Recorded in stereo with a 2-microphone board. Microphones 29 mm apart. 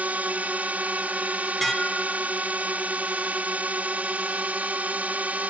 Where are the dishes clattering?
10° left (ahead or behind).